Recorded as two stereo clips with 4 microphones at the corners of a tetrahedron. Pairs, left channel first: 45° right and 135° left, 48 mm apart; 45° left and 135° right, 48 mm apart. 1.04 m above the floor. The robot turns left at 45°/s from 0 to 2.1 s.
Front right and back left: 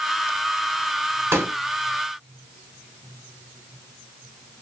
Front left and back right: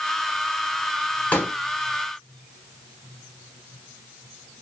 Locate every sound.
1.3 s a pop: 110° left, 1.9 m; by 1.5 s 100° left, 1.9 m